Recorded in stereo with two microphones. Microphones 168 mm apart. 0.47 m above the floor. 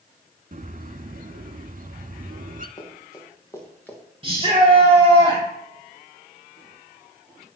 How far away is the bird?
About 0.7 m.